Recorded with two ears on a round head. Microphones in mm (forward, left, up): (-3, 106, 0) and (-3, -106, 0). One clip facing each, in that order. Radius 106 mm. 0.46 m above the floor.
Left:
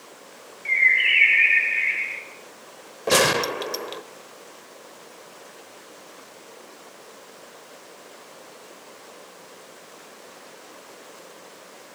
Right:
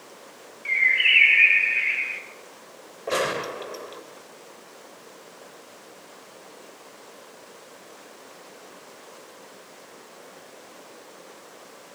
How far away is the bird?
About 1.2 m.